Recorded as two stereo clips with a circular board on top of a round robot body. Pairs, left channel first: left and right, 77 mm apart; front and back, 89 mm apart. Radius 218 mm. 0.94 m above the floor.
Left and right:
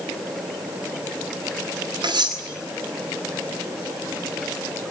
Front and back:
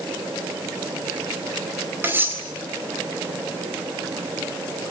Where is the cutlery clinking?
115° right, 4 m.